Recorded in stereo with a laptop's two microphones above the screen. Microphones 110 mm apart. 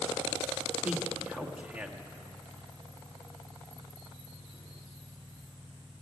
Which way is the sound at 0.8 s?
10° right (ahead or behind).